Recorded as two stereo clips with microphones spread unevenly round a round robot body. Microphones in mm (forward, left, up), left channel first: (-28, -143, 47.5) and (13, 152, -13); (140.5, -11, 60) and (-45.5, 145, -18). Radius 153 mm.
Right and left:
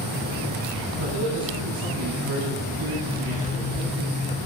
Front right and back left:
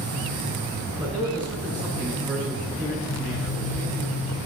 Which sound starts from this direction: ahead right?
A zipper, at 3.1 s.